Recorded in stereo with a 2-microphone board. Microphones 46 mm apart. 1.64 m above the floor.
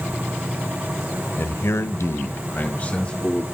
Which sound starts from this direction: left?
A man speaking, at 1.4 s.